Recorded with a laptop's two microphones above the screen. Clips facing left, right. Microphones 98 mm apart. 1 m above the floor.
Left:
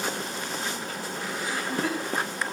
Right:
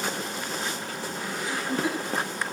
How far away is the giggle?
About 3.5 m.